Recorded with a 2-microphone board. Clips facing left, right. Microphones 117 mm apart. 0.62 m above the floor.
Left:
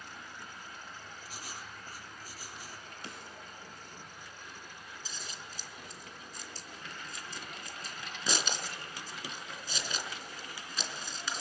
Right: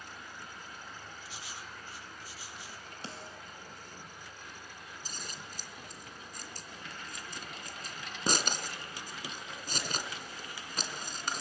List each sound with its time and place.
1.2 s writing: 40° left (ahead or behind), 4.5 m
3.0 s a snare drum: 30° right (ahead or behind), 3 m
5.0 s scissors: 55° right (ahead or behind), 3 m